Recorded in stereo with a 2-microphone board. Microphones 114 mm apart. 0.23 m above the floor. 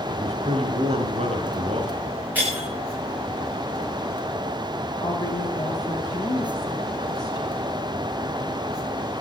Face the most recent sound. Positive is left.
turn(degrees=40)  # may be behind; listen again after turning